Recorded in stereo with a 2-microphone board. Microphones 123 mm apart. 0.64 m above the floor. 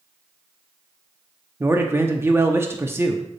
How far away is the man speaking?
About 0.7 m.